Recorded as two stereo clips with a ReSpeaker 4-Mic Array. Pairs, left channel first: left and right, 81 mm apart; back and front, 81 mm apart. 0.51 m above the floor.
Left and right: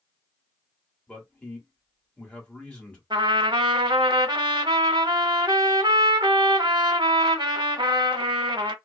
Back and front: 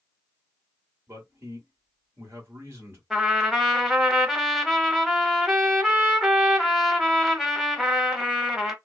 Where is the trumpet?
85° right, 0.8 m.